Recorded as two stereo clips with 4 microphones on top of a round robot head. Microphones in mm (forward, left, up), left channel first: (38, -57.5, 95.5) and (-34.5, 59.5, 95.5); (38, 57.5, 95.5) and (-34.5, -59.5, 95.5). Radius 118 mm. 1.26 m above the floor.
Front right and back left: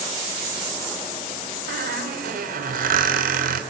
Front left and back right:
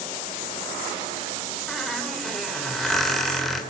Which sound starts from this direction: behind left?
A squeak, at 1.7 s.